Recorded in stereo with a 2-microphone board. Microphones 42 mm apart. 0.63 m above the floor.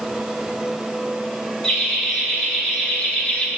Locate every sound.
1.6 s laughter: 15° left (ahead or behind), 1.8 m; by 3.5 s 25° left (ahead or behind), 0.8 m